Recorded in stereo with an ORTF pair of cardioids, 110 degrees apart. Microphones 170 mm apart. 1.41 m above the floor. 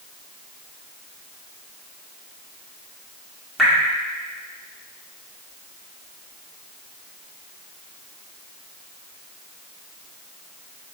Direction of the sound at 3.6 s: Straight ahead.